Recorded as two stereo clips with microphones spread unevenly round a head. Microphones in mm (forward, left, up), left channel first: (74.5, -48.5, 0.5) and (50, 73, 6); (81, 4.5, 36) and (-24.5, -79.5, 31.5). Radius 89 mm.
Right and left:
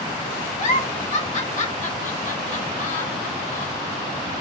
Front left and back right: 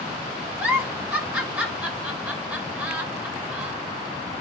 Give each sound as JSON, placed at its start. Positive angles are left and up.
{"t": 0.6, "sound": "a giggle", "azimuth_deg": -60, "distance_m": 2.5}